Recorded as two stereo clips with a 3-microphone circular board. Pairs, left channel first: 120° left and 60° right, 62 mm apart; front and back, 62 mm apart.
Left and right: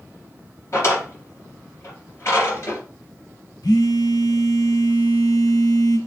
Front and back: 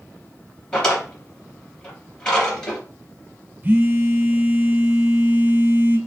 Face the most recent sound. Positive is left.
turn(degrees=120)